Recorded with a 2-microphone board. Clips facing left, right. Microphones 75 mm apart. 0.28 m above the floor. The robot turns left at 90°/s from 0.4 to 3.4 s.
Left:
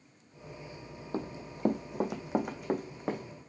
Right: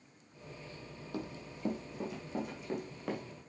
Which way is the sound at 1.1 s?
35° left (ahead or behind).